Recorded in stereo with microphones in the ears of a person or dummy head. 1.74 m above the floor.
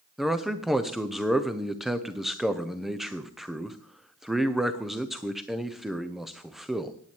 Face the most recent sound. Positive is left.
turn(degrees=0)  # may be behind; listen again after turning